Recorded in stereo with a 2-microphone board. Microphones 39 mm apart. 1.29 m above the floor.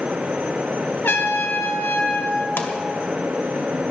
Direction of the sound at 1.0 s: 75° left (ahead or behind).